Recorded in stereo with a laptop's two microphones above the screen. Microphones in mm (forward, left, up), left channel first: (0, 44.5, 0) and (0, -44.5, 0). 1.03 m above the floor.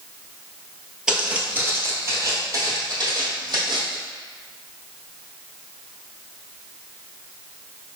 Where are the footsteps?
10° right (ahead or behind), 1.1 m; by 4.0 s 55° right (ahead or behind), 2 m.